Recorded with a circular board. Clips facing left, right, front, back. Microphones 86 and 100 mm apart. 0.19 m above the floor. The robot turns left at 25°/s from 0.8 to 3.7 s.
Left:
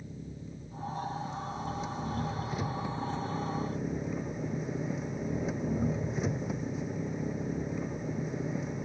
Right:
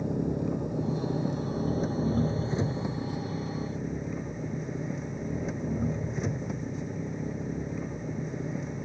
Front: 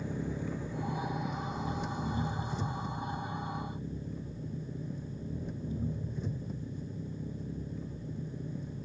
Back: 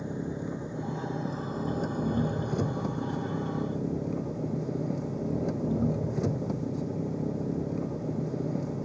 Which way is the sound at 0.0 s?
110° right.